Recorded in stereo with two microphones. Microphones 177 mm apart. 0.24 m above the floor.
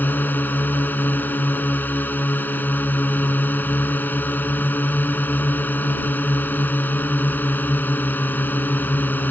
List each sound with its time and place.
0.0 s a drone: 10° left (ahead or behind)